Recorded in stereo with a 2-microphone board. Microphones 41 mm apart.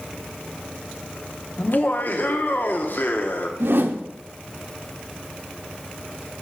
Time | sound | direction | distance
1.6 | laughter | 50° left (ahead or behind) | 0.9 m
3.6 | a whoosh | 65° right (ahead or behind) | 0.7 m